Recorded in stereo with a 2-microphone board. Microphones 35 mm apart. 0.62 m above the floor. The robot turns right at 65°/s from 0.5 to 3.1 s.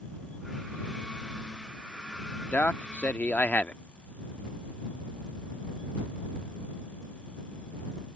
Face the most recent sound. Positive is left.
turn(degrees=110)